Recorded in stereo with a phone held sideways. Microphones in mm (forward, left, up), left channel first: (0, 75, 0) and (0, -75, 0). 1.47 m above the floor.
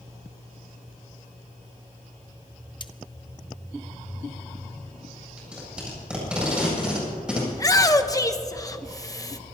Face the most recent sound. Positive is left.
turn(degrees=25)  # may be behind; listen again after turning